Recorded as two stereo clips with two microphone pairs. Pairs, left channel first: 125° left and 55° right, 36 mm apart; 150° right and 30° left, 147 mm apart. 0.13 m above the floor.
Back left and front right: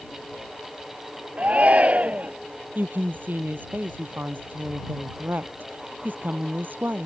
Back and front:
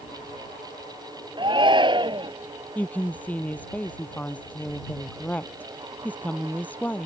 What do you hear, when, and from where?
1.4 s a shout: 20° right
2.8 s a woman speaking: 70° right